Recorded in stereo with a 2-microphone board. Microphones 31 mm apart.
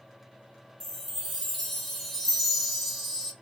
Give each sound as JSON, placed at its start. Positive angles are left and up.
{"t": 0.8, "sound": "a chime", "side_deg": 10, "distance_m": 0.7}